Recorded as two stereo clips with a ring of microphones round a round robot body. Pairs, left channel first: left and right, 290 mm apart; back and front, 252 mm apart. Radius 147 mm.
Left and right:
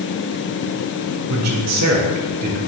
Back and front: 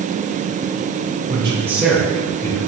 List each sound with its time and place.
1.3 s a man speaking: 60° right, 1.3 m; by 2.6 s 120° right, 1.4 m